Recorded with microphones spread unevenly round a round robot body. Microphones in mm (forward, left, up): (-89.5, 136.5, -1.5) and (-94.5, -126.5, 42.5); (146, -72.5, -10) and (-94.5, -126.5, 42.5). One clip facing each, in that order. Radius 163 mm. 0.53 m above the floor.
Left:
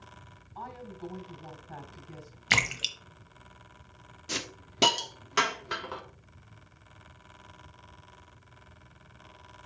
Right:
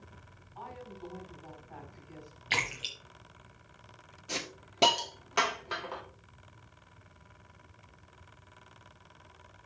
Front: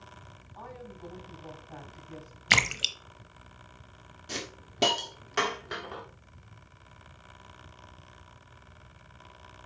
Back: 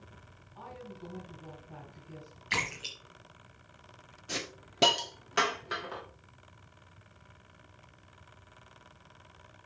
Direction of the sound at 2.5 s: 45° left.